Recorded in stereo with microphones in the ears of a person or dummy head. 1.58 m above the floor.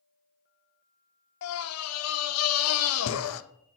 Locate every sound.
1.4 s a scream: 75° left (ahead or behind), 0.7 m